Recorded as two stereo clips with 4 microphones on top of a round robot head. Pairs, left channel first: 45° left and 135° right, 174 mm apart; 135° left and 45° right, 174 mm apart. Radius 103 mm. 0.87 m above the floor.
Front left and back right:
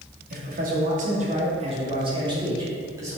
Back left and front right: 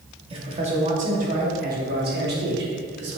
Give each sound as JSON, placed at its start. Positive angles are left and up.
{"t": 0.3, "sound": "a man speaking", "azimuth_deg": -105, "distance_m": 2.5}